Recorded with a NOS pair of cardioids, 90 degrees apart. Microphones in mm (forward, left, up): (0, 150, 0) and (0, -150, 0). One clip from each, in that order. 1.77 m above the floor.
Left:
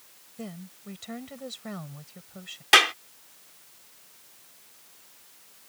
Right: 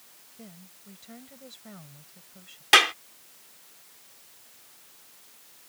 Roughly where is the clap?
Ahead.